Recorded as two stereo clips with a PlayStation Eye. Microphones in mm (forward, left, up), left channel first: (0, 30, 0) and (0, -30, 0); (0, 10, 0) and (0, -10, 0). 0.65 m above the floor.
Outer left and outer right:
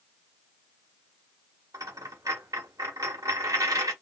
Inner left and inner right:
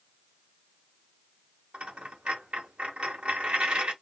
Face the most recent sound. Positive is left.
turn(degrees=-85)